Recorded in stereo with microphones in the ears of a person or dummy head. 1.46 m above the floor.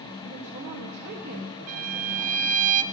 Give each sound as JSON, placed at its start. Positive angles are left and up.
{"t": 0.2, "sound": "a woman speaking", "side_deg": -45, "distance_m": 1.8}
{"t": 1.7, "sound": "a violin", "side_deg": -45, "distance_m": 0.6}